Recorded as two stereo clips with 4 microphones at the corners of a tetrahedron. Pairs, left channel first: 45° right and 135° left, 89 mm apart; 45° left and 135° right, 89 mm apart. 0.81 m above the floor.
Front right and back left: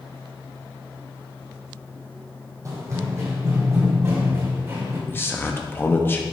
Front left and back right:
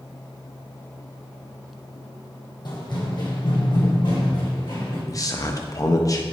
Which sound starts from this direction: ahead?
A man speaking, at 5.1 s.